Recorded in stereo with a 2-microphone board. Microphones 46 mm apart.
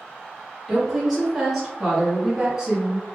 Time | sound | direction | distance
0.7 | a woman speaking | centre (ahead or behind) | 1.9 m